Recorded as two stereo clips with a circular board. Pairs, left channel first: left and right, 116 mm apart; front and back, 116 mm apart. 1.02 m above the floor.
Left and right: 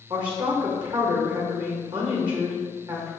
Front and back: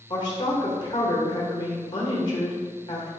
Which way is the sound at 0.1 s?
45° right.